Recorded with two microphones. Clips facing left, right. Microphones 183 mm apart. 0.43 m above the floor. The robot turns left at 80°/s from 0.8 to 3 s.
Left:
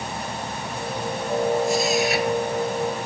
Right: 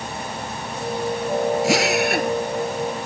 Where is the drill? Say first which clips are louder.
Right 2 dB; 90° right; by 2.3 s 145° right.